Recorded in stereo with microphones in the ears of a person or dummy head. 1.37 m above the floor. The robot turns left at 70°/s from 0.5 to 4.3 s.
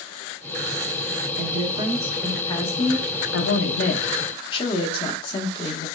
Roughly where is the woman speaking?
Behind right.